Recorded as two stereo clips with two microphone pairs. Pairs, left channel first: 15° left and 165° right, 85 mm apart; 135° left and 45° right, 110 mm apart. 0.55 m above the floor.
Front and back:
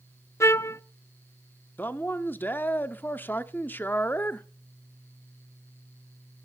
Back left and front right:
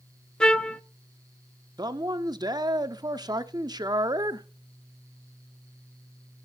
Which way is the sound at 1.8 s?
30° right.